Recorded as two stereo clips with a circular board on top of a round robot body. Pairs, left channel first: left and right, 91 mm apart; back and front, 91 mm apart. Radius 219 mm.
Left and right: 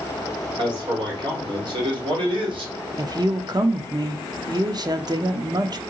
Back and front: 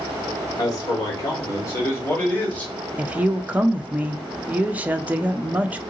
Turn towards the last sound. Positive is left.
turn(degrees=-70)